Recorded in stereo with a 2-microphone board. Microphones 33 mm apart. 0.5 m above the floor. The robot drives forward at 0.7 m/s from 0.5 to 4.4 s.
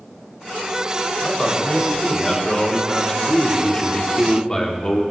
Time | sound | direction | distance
1.2 | a man speaking | 15° left (ahead or behind) | 2.5 m